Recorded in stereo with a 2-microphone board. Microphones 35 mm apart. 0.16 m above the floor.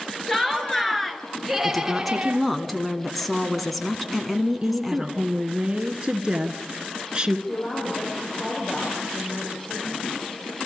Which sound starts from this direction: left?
A woman speaking, at 7.5 s.